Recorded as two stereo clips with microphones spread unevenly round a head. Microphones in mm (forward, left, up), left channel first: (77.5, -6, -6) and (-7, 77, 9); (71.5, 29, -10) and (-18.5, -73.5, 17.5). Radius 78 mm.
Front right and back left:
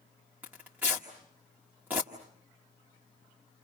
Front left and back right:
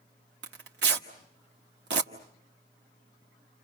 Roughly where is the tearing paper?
Behind right.